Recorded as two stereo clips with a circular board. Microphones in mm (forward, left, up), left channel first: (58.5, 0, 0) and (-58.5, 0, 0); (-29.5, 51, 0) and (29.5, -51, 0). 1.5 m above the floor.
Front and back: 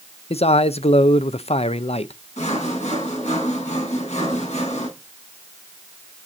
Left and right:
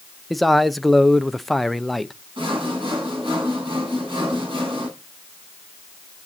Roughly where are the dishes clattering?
No dishes clattering in this recording.